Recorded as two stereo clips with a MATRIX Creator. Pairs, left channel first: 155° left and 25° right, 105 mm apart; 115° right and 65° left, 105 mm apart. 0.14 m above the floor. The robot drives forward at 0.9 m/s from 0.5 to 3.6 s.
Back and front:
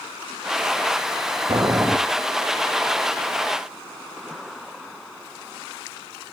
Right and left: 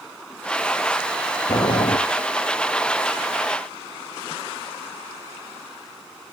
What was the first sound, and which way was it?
Boiling, 70° right.